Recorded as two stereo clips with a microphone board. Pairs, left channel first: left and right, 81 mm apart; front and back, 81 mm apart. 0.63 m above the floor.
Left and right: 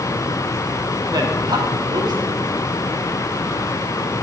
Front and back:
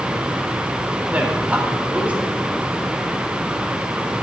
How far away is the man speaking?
About 2.5 m.